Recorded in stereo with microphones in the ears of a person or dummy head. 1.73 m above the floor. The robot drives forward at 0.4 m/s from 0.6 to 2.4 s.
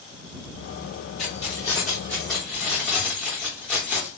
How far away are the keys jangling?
About 0.6 m.